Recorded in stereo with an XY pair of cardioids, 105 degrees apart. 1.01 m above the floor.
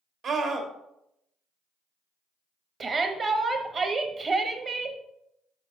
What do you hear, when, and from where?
0.2 s a scream: 60° right, 1.7 m
2.8 s a shout: 40° right, 1.1 m